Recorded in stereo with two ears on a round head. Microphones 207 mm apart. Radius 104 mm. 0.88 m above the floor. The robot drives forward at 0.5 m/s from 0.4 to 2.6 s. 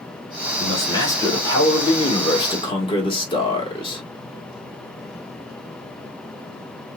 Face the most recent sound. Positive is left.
turn(degrees=25)  # may be behind; listen again after turning